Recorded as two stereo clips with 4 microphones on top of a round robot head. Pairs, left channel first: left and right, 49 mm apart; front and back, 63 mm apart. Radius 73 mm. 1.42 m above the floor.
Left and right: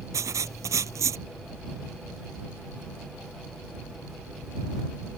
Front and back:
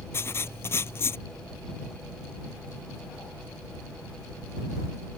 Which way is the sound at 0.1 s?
60° right.